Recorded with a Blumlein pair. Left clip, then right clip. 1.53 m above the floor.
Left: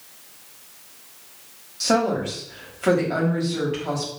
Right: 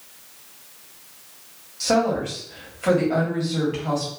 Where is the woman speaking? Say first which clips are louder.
Even; 5° left, 1.4 m.